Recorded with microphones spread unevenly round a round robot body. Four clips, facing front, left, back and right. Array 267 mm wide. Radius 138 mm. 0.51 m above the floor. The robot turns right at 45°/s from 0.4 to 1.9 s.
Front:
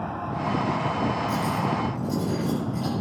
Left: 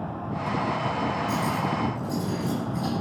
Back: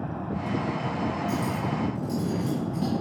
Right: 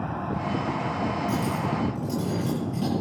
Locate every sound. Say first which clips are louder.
1.3 s cutlery clinking: left 1 dB, front 3 dB; 170° right, 8.5 m; by 2.9 s 140° right, 8.5 m